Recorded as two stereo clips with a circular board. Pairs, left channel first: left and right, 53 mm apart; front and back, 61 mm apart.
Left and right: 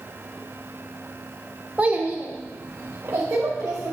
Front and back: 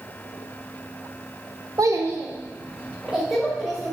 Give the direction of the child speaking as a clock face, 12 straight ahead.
5 o'clock.